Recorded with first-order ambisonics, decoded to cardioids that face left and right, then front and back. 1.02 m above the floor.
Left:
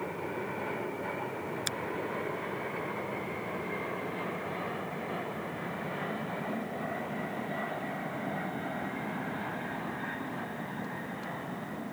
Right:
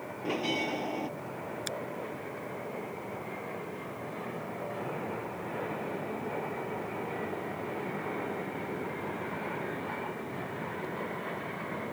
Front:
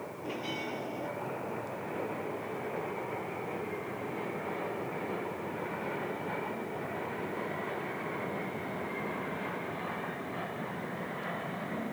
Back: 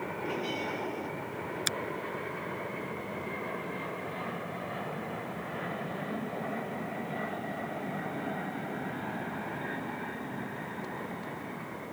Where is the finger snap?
170° left.